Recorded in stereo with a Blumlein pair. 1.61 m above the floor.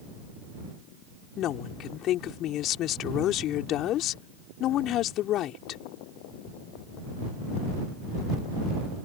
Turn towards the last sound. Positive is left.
turn(degrees=35)